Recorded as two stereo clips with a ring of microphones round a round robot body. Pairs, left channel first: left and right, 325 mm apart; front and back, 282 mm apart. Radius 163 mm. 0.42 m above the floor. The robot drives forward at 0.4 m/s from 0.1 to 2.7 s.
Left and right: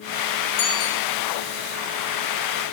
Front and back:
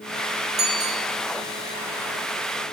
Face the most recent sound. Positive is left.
turn(degrees=140)